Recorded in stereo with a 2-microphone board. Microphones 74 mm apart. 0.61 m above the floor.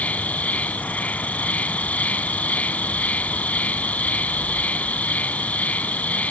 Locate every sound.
0.0 s an insect: 20° left (ahead or behind)